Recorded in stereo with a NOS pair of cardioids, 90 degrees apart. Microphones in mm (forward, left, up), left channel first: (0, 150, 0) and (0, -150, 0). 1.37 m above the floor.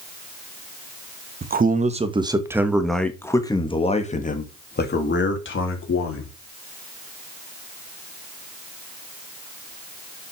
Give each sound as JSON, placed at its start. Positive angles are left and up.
{"t": 1.4, "sound": "a man speaking", "azimuth_deg": -30, "distance_m": 2.0}